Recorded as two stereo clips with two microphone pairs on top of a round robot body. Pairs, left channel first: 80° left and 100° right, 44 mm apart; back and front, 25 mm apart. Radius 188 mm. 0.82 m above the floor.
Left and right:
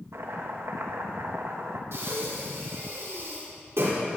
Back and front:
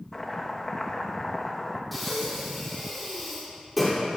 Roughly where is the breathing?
Right.